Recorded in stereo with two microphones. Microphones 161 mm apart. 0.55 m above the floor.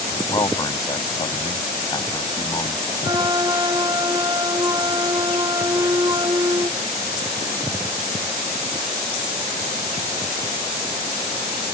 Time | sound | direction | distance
0.3 | a man speaking | 25° left (ahead or behind) | ?
3.0 | a flute | 25° right (ahead or behind) | ?